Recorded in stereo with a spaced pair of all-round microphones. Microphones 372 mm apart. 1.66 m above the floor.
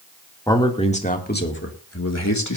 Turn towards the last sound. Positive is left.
turn(degrees=50)  # may be behind; listen again after turning